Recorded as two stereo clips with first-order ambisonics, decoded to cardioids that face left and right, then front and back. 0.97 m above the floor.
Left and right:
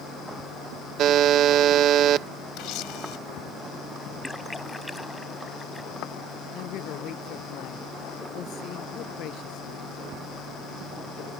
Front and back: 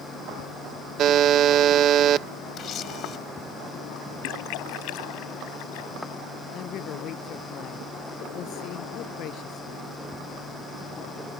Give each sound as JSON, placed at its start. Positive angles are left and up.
{"t": 1.0, "sound": "a buzzer", "azimuth_deg": -135}
{"t": 2.6, "sound": "a camera shutter", "azimuth_deg": 55}
{"t": 4.2, "sound": "a splash", "azimuth_deg": 5}
{"t": 6.5, "sound": "a man speaking", "azimuth_deg": 45}